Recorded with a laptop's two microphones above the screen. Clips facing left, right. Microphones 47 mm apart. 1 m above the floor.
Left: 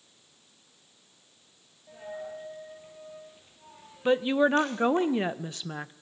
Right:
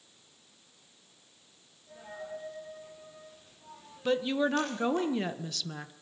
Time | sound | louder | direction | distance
1.9 | a dropped coin | left 3 dB | 35° left (ahead or behind) | 6.5 m
4.0 | a woman speaking | left 5 dB | 25° left (ahead or behind) | 0.8 m